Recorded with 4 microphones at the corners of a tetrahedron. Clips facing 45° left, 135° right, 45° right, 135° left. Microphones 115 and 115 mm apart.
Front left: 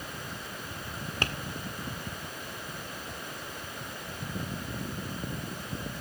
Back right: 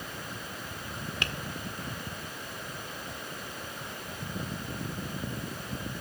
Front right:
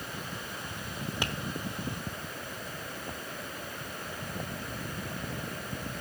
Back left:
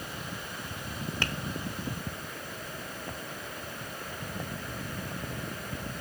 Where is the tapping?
20° left, 1.2 m.